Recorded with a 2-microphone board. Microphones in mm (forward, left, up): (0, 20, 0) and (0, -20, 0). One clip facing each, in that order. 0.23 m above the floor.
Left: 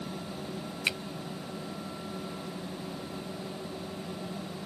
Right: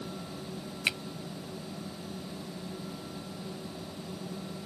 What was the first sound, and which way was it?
A finger snap, 5° right (ahead or behind).